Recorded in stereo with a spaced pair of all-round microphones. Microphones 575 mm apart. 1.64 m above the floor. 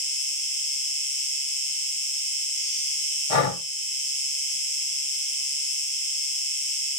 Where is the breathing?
65° left (ahead or behind), 1.3 m.